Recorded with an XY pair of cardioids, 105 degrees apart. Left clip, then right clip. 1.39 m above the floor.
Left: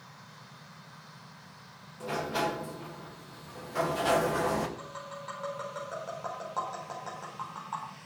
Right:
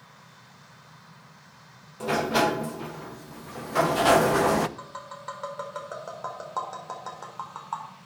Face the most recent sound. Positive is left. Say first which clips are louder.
# right 2 dB
turn(degrees=-40)